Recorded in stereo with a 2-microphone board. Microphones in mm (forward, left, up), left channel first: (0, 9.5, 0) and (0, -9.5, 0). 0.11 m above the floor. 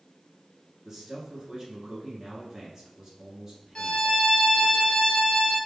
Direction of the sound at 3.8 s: 40° left (ahead or behind).